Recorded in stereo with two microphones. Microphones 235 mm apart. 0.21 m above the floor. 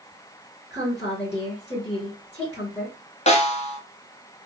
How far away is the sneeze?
I don't hear a sneeze.